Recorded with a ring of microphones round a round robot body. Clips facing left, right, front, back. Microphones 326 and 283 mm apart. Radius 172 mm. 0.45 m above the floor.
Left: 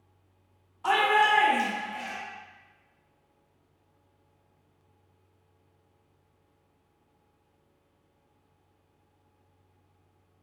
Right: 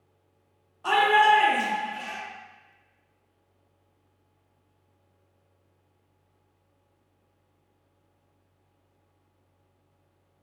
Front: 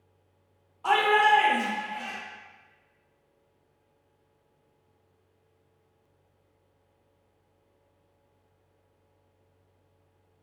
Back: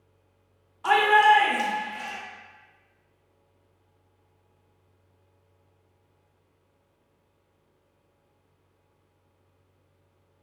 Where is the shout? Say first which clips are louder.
Right 3 dB, back 2 dB; 145° left, 0.8 m.